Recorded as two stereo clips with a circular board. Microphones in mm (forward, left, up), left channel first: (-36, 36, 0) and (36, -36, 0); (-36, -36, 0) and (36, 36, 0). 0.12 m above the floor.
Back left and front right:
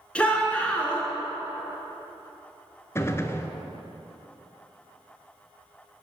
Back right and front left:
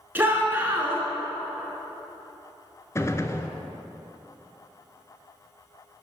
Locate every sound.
0.1 s a shout: 80° left, 1.5 m
3.0 s a gunshot: straight behind, 0.5 m